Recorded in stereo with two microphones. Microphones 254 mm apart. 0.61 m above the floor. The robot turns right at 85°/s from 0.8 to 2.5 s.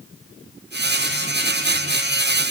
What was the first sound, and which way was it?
Only background noise.